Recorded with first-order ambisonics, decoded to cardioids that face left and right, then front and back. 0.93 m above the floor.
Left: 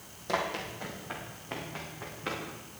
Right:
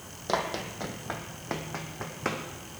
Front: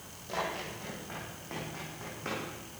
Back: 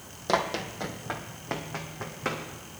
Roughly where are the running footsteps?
Behind right.